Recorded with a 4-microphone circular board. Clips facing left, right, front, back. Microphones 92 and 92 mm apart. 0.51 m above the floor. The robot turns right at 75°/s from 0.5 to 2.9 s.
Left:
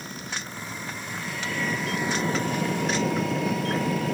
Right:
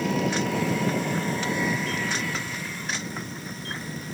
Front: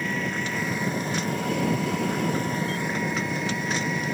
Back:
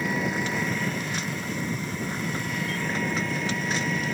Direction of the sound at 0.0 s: 100° right.